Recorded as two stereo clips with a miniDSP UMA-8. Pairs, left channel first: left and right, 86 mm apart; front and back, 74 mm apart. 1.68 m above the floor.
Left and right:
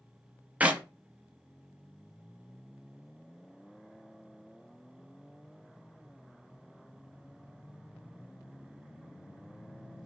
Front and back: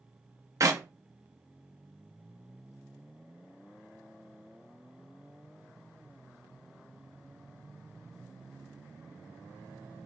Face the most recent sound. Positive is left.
turn(degrees=-160)